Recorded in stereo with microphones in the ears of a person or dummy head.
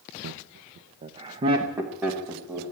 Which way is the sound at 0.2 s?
85° right.